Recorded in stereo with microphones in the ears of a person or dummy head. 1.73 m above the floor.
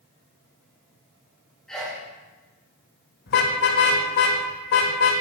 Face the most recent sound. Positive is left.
turn(degrees=70)  # may be behind; listen again after turning